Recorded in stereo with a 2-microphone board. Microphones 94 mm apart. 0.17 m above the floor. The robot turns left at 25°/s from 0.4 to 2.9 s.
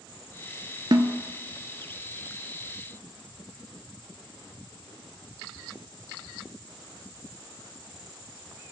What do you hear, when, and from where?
0.9 s a snare drum: 55° right (ahead or behind), 0.7 m; by 1.2 s 50° right (ahead or behind), 0.7 m